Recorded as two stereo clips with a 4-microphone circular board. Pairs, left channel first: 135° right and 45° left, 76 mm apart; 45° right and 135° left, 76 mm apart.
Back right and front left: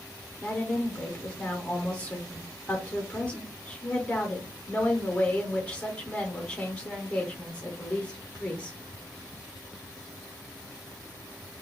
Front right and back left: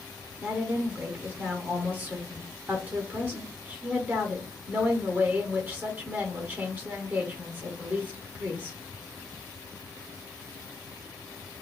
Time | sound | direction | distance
0.4 | a woman speaking | 170° left | 0.8 m